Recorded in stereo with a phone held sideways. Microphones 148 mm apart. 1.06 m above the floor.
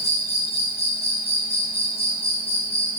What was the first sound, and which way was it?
An insect, 45° left (ahead or behind).